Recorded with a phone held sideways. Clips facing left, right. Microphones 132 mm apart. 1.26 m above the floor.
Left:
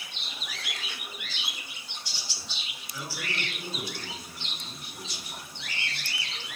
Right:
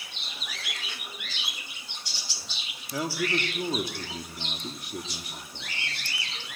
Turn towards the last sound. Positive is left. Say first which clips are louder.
# right 9 dB
turn(degrees=-80)